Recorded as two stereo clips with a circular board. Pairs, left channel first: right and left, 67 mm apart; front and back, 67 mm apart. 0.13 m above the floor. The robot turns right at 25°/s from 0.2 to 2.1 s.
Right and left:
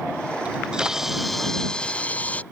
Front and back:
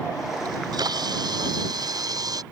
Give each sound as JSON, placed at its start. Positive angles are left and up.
{"t": 0.5, "sound": "a camera shutter", "azimuth_deg": 160}